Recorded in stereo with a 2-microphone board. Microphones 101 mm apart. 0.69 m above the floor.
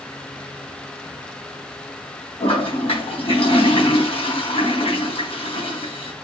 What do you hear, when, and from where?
2.4 s a toilet flushing: 65° left (ahead or behind), 4 m